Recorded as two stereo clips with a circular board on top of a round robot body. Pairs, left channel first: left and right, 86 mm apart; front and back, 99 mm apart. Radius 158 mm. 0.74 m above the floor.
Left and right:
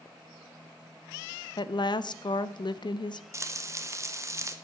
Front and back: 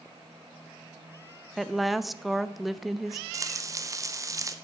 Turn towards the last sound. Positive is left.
turn(degrees=-135)